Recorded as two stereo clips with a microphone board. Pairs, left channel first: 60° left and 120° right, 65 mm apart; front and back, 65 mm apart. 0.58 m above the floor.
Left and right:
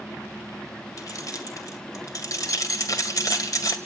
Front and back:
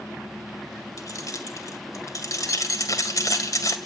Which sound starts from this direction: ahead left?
Keys jangling, at 1.0 s.